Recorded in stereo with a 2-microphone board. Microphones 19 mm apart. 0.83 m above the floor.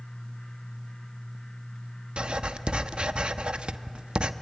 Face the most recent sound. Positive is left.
turn(degrees=-65)  # may be behind; listen again after turning